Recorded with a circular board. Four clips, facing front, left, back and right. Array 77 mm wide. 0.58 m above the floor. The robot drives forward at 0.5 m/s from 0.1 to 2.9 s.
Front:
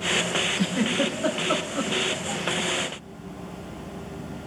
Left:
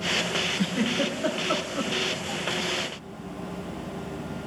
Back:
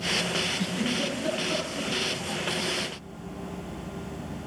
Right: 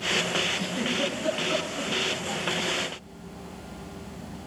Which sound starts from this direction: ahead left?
A giggle, at 0.6 s.